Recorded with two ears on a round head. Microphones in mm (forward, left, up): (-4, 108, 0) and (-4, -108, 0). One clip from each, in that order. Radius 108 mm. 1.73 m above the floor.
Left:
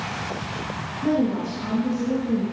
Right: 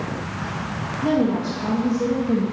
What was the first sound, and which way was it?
A woman speaking, 45° right (ahead or behind).